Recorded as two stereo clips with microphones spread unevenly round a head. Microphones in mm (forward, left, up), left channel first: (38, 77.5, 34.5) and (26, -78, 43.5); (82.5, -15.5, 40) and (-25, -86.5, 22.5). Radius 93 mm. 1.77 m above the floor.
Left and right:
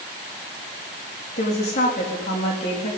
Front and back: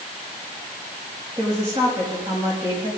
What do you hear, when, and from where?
1.4 s a woman speaking: 140° left, 4 m